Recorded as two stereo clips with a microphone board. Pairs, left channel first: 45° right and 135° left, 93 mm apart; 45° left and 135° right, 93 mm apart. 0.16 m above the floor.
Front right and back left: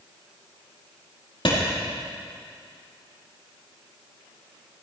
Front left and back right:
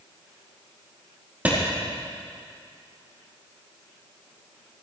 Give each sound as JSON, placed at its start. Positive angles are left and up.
{"t": 1.4, "sound": "a clap", "azimuth_deg": -60, "distance_m": 5.0}